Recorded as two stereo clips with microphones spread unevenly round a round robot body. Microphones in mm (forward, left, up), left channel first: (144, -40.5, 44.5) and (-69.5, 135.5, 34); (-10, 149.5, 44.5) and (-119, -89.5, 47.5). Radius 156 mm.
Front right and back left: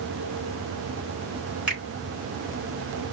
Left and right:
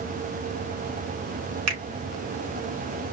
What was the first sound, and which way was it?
A finger snap, 135° right.